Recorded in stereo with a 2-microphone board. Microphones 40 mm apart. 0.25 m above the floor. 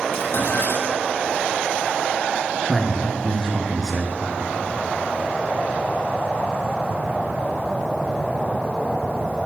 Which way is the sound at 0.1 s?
60° left (ahead or behind).